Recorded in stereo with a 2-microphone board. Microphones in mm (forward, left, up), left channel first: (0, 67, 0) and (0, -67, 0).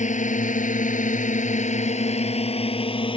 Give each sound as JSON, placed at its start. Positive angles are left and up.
{"t": 0.0, "sound": "a drone", "side_deg": 65}